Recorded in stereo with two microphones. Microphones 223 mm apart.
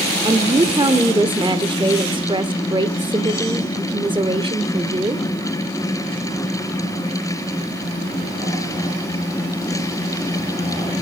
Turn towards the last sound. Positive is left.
turn(degrees=-20)  # may be behind; listen again after turning